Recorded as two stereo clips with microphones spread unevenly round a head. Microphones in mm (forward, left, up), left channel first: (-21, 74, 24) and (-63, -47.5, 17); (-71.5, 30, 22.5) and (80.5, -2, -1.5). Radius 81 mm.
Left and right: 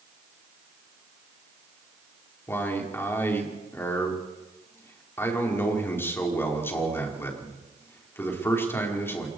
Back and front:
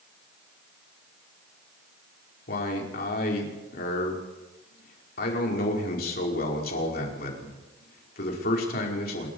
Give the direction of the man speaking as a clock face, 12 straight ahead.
7 o'clock.